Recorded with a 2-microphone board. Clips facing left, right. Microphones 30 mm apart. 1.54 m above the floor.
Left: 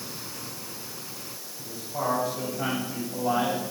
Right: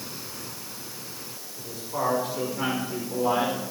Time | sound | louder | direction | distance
1.6 | a man speaking | right 2 dB | 85° right | 6 m